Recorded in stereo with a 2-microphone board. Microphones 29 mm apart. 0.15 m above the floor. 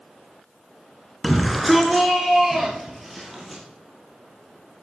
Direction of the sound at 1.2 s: Centre (ahead or behind).